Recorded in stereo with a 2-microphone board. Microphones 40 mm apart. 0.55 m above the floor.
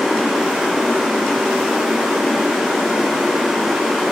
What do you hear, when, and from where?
0.0 s running water: 15° right (ahead or behind), 4.5 m